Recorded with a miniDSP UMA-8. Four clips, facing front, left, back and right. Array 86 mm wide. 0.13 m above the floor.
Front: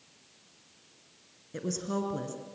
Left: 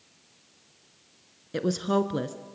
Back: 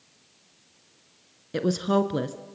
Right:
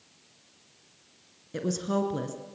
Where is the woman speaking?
155° left, 1.5 m.